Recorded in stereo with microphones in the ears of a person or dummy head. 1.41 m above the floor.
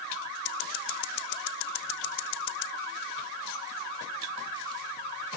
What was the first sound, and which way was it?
Scissors, 60° left (ahead or behind).